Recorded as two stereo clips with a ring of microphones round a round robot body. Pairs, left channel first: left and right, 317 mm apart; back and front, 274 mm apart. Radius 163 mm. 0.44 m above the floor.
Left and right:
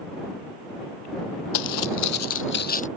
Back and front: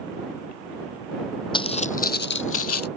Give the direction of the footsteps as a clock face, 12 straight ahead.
8 o'clock.